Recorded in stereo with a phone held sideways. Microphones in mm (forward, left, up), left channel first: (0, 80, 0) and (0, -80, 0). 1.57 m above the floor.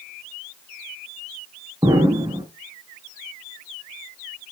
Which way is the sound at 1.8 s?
25° right (ahead or behind).